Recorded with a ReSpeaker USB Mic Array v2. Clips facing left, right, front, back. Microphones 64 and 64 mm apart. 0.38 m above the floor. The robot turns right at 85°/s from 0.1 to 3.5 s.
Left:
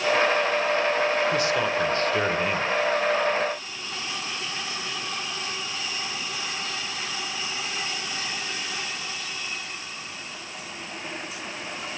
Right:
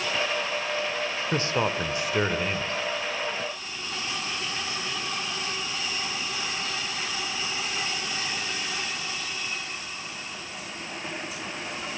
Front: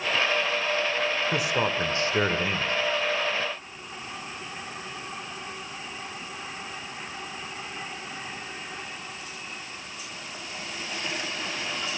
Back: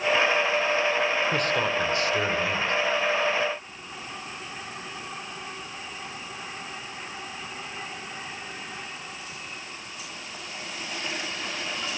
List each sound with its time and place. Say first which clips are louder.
1.3 s a man speaking: left 2 dB, back 1 dB; 85° right, 0.9 m; by 2.7 s 40° left, 0.9 m